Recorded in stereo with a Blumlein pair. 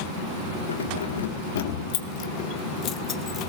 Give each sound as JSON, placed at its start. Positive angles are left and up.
{"t": 0.7, "sound": "keys jangling", "azimuth_deg": 70, "distance_m": 1.9}